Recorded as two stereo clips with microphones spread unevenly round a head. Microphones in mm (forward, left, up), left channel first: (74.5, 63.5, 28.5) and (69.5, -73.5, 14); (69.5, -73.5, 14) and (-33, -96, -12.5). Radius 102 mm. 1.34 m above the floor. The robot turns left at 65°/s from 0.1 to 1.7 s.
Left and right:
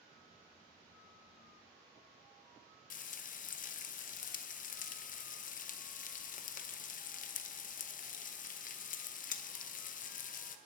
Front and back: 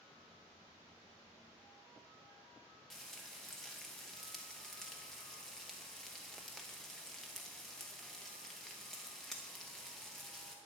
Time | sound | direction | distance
2.9 | frying | 90° left | 0.7 m